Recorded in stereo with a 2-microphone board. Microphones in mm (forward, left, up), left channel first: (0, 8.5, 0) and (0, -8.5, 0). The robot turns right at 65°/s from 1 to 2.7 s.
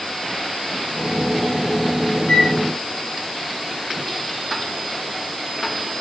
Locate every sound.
2.3 s a flute: 80° left, 6.5 m